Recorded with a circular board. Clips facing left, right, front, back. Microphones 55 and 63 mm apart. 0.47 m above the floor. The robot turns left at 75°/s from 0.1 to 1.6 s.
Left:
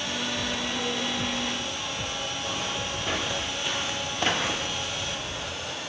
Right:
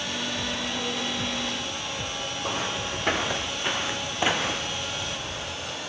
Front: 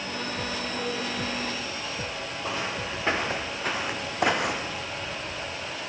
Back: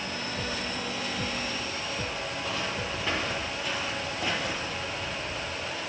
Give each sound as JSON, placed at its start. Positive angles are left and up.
{"t": 2.4, "sound": "footsteps", "azimuth_deg": -65, "distance_m": 2.5}